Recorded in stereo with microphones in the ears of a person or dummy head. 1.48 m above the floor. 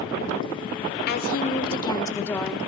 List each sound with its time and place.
1.1 s a woman speaking: 55° left (ahead or behind), 1.3 m; by 2.6 s centre (ahead or behind), 1.6 m